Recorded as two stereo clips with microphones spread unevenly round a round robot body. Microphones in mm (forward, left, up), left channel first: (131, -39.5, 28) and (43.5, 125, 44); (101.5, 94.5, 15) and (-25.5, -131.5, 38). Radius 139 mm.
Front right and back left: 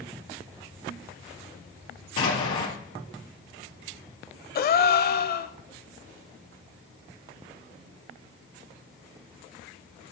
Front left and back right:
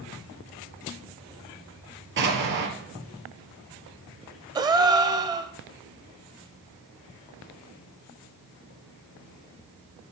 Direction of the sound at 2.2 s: 75° right.